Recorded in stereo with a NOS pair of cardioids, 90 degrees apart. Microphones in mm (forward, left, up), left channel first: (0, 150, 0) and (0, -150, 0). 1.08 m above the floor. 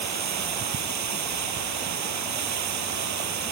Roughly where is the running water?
Ahead right.